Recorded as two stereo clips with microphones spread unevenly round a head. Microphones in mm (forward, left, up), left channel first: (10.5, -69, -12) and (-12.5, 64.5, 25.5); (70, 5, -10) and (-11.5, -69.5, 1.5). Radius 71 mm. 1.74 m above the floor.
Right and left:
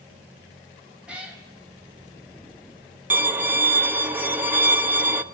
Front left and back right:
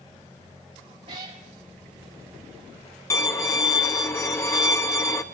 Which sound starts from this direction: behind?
A cat meowing, at 1.1 s.